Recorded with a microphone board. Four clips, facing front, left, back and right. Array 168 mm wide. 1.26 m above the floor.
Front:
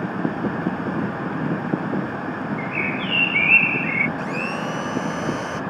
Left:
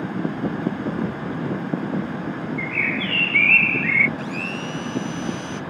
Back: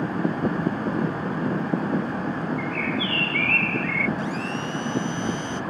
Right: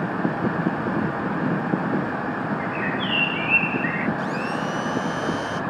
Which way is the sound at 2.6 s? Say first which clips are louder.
Right 1 dB, front 1 dB; 110° left.